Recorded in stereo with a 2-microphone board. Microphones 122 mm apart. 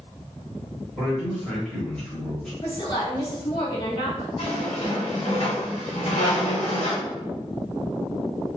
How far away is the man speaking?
About 1.2 m.